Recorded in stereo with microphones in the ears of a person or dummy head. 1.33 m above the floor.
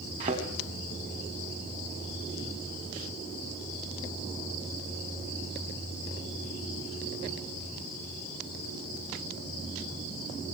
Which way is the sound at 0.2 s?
25° right (ahead or behind).